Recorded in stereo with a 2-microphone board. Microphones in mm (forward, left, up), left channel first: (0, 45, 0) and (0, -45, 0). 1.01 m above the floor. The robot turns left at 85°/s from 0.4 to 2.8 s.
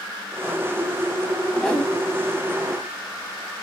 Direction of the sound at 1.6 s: 15° left (ahead or behind).